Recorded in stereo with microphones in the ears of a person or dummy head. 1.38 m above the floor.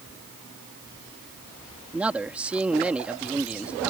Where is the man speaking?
5° right (ahead or behind).